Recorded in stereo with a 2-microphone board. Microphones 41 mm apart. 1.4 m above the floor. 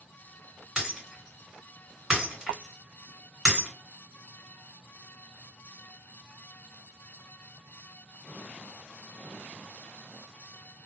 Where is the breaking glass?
15° right (ahead or behind), 1.9 m.